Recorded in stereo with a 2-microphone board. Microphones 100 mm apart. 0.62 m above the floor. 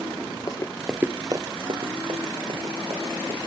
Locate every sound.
0.5 s running footsteps: 40° left (ahead or behind), 0.8 m; by 3.4 s 65° right (ahead or behind), 3.5 m